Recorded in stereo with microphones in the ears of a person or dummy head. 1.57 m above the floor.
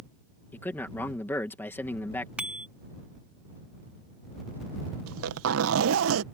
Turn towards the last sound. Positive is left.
turn(degrees=-85)